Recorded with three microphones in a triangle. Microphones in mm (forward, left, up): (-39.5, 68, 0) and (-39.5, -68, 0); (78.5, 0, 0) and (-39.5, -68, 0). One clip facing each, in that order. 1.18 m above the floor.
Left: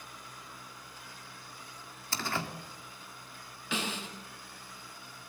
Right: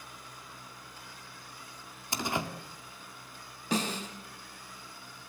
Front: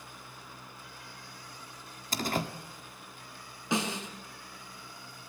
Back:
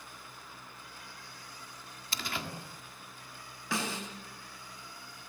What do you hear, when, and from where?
2.1 s a door slam: 20° right, 1.8 m
3.7 s a snare drum: 40° right, 4.5 m